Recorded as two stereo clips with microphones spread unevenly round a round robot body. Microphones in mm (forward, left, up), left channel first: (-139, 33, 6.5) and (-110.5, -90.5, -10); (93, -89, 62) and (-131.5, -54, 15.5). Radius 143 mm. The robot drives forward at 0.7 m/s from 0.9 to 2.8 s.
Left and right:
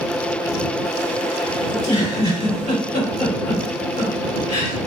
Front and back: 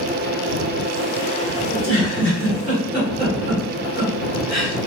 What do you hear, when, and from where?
1.7 s a giggle: 110° left, 2 m; by 4.8 s 130° left, 2.5 m